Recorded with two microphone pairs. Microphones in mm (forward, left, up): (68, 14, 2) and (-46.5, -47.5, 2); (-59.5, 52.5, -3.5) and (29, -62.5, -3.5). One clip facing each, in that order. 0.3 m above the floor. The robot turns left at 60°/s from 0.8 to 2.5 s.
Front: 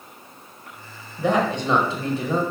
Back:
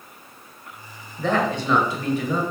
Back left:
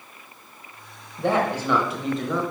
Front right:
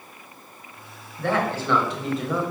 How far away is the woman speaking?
About 1.1 m.